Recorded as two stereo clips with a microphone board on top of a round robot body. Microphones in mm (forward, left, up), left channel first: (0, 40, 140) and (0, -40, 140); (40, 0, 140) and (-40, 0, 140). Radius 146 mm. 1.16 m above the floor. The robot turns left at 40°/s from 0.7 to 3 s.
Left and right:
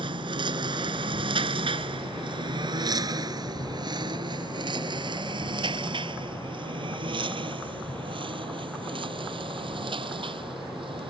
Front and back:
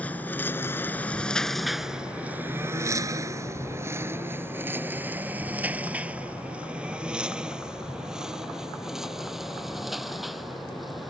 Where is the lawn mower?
75° right; by 11.1 s 90° right.